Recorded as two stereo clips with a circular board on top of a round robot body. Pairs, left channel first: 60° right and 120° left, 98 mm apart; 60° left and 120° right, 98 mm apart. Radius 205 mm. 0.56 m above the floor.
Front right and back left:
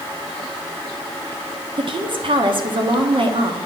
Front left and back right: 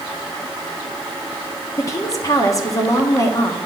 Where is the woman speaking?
110° left, 1.6 m.